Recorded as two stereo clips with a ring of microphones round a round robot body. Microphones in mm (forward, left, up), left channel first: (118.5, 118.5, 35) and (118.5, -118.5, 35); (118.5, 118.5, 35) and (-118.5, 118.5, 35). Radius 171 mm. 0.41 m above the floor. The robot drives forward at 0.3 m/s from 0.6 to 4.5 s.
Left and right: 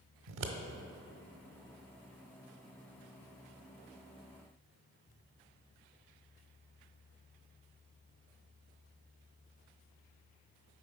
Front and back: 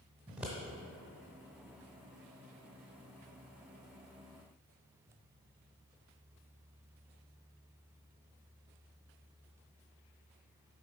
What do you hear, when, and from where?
0.3 s scissors: 95° right, 0.7 m